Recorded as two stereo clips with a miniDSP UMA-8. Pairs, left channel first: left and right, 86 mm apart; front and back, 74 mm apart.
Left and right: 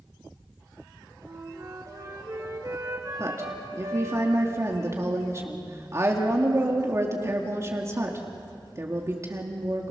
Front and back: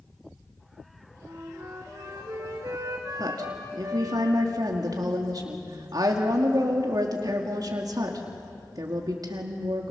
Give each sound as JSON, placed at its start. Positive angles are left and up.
{"t": 1.2, "sound": "a flute", "azimuth_deg": -135, "distance_m": 3.0}
{"t": 3.2, "sound": "a woman speaking", "azimuth_deg": -145, "distance_m": 2.0}